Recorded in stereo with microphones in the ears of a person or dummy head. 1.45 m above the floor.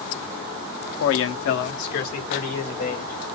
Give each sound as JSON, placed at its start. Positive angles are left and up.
{"t": 1.0, "sound": "a man speaking", "side_deg": 75, "distance_m": 0.7}